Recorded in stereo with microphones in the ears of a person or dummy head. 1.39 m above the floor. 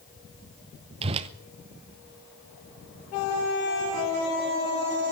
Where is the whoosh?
35° right (ahead or behind), 0.8 m.